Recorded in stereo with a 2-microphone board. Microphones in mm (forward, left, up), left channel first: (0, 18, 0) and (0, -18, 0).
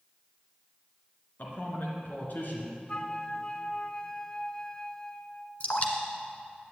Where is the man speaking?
60° left (ahead or behind), 2.5 m.